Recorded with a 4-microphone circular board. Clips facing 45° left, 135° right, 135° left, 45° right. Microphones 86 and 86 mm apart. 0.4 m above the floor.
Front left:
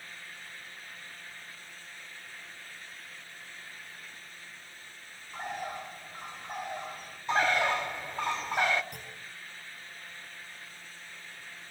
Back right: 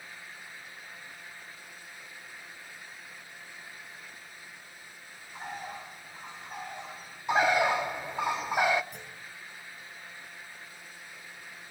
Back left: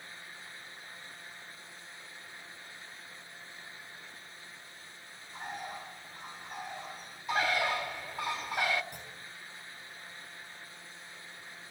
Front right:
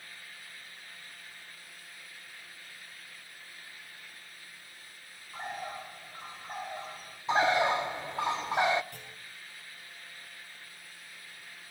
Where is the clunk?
65° left, 5 m.